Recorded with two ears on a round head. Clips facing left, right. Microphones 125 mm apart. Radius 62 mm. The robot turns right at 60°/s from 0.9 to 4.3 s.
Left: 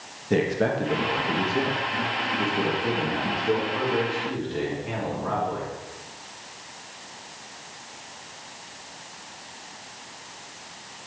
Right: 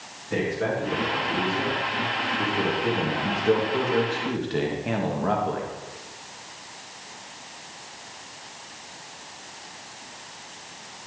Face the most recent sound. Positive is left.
turn(degrees=-90)